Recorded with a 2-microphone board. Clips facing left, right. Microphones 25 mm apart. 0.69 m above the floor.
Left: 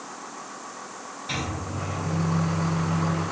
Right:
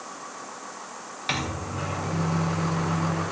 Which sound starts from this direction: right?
A microwave, at 1.3 s.